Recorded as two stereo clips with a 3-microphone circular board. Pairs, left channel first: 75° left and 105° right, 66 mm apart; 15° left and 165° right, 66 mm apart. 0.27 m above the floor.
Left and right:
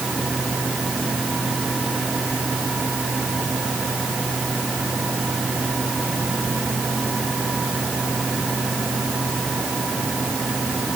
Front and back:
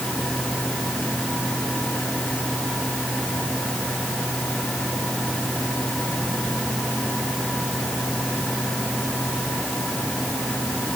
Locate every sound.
Only background noise.